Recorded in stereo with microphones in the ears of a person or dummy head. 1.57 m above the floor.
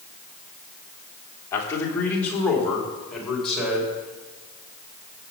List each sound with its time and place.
1.5 s a man speaking: 15° left (ahead or behind), 3 m; by 4.0 s centre (ahead or behind), 5.5 m